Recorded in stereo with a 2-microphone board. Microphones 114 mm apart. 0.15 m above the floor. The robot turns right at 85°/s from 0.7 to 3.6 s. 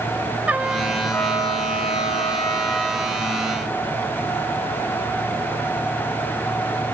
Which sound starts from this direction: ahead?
A trumpet, at 0.5 s.